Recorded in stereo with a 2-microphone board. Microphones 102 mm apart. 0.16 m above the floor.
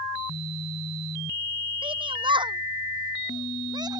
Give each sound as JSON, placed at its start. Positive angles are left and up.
{"t": 1.8, "sound": "a shout", "side_deg": -55}